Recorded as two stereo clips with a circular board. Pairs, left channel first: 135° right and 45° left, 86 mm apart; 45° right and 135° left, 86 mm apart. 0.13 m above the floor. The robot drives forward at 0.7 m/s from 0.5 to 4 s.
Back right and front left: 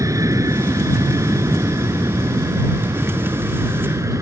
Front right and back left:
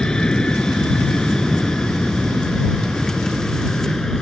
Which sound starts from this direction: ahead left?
An aircraft, at 0.0 s.